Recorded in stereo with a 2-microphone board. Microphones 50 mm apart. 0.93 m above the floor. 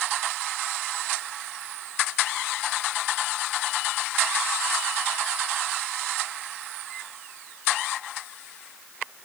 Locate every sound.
Only background noise.